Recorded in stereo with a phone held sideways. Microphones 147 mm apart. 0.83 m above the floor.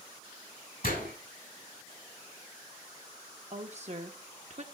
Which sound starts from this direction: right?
A woman speaking, at 3.5 s.